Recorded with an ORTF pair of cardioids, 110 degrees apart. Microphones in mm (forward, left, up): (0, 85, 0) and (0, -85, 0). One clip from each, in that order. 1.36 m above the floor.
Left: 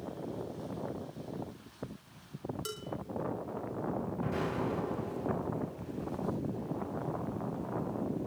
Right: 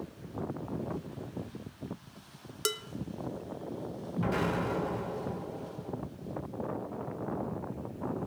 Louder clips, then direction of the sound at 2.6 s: Right 13 dB; 65° right.